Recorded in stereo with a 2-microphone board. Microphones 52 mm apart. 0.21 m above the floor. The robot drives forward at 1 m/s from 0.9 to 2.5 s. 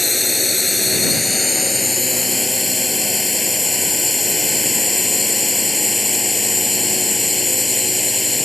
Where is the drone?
Centre (ahead or behind).